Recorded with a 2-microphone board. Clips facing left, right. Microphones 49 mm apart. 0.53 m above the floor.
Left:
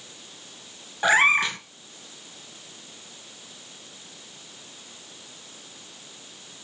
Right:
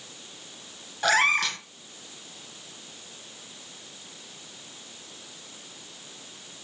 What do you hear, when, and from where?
1.0 s a cat meowing: 20° left (ahead or behind), 0.7 m